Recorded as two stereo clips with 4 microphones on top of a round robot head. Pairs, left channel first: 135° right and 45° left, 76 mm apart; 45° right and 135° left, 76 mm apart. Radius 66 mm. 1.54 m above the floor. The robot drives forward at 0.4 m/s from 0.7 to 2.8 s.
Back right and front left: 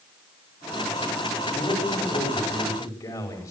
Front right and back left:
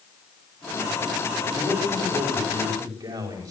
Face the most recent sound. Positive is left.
turn(degrees=180)